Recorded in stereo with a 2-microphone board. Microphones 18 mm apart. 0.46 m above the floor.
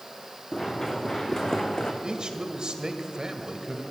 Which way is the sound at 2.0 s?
50° right (ahead or behind).